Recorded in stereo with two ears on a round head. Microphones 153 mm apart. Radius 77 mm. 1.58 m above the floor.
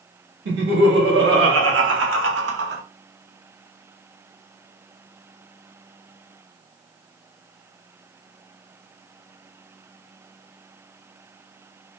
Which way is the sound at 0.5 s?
70° right (ahead or behind).